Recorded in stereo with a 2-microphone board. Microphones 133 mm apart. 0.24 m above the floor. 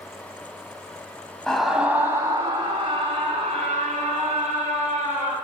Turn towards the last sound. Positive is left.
turn(degrees=-60)  # may be behind; listen again after turning